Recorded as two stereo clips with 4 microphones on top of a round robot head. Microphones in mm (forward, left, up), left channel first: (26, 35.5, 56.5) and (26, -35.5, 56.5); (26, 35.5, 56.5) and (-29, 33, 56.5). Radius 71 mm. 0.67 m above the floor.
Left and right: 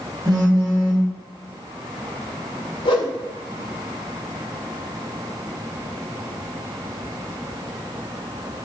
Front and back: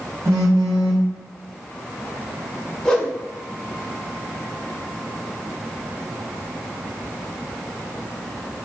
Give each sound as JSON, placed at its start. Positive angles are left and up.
{"t": 0.2, "sound": "a phone buzzing", "azimuth_deg": -130, "distance_m": 1.6}
{"t": 2.9, "sound": "a whoosh", "azimuth_deg": 80, "distance_m": 0.8}